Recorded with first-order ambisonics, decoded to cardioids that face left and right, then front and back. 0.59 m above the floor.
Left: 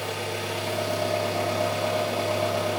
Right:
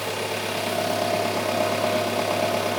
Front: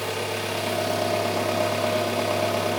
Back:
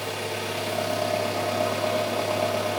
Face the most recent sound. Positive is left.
turn(degrees=-70)